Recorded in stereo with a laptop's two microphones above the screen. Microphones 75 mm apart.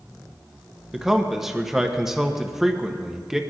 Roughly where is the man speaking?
Centre.